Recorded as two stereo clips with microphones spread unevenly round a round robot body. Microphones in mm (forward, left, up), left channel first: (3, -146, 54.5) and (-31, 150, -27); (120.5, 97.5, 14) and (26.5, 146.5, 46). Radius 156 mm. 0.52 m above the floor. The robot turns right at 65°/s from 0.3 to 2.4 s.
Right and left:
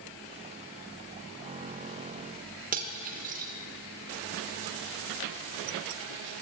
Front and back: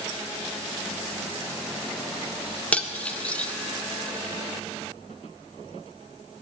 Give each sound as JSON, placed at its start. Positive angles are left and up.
{"t": 2.7, "sound": "cutlery clinking", "azimuth_deg": 45, "distance_m": 0.6}